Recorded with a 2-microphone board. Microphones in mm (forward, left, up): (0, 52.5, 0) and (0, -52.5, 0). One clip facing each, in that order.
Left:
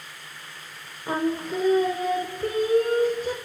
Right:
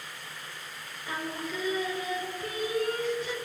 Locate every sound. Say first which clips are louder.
1.1 s singing: left 10 dB; 45° left (ahead or behind), 1.2 m